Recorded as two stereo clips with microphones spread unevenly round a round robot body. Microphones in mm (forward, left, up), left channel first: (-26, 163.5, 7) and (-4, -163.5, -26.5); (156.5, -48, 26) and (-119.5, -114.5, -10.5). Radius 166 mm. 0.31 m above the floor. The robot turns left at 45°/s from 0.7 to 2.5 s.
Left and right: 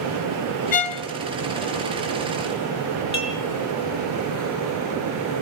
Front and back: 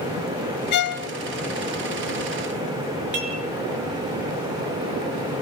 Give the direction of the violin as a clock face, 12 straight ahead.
11 o'clock.